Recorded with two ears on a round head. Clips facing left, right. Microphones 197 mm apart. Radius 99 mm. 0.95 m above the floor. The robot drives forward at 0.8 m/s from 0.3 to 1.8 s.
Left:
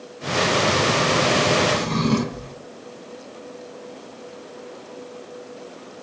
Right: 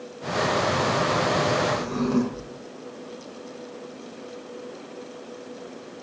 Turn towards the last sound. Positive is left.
turn(degrees=80)